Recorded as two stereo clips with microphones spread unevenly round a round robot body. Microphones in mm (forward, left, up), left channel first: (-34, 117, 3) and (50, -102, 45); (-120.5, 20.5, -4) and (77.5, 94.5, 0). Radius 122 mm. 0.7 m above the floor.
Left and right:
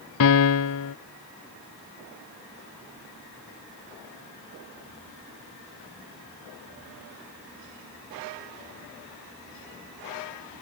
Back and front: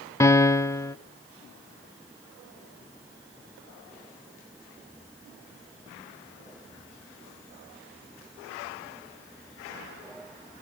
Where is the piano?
125° left, 0.7 m.